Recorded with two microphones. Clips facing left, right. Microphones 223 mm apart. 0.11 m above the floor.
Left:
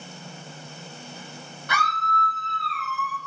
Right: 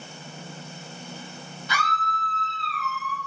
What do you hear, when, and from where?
1.7 s a scream: 60° left (ahead or behind), 3 m; by 3.2 s 45° left (ahead or behind), 2 m